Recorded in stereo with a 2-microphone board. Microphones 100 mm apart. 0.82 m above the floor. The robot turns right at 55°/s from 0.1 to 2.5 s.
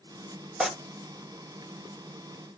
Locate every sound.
0.6 s tearing paper: 5° right (ahead or behind), 1.0 m; by 0.7 s centre (ahead or behind), 1.0 m